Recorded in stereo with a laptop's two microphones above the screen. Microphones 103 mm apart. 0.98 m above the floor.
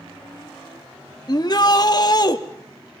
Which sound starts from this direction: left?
A shout, at 1.3 s.